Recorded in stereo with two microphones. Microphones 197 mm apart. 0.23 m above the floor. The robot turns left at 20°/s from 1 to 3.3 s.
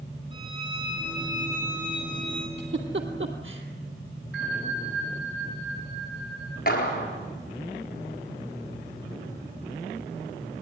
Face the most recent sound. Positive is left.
turn(degrees=50)  # may be behind; listen again after turning